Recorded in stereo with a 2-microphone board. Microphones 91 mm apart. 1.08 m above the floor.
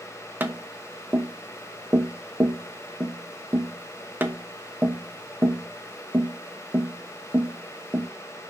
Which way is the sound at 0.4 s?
25° right (ahead or behind).